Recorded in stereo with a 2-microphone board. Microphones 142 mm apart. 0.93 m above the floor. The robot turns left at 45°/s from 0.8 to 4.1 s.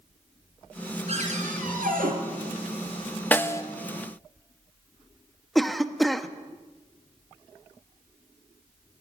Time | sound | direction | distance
1.1 | a cupboard door | 50° right | 6 m
3.3 | a snare drum | 15° left (ahead or behind) | 1.2 m
5.5 | a cough | centre (ahead or behind) | 1.4 m